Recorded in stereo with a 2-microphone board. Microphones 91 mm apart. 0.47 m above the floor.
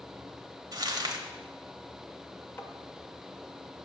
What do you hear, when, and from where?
0.7 s crumpling: 50° right (ahead or behind), 0.9 m
2.6 s tapping: 25° left (ahead or behind), 0.7 m